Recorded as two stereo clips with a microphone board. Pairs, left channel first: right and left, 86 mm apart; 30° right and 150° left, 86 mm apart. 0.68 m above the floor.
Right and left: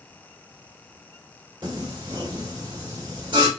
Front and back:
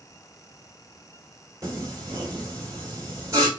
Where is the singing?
105° left, 1.8 m.